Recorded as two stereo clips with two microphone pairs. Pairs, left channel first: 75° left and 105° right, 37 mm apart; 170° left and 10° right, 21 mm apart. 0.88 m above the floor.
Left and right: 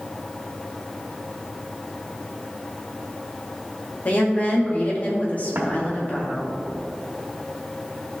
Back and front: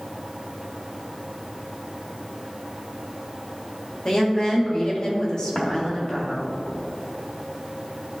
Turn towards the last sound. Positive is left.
turn(degrees=-130)